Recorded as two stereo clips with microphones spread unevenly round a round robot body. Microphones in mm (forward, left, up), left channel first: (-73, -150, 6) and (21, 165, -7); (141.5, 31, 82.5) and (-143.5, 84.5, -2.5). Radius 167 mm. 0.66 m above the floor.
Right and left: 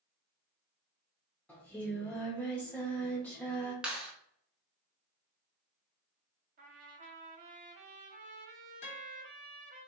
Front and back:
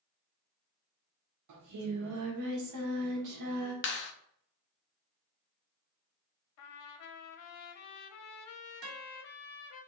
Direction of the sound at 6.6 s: 10° left.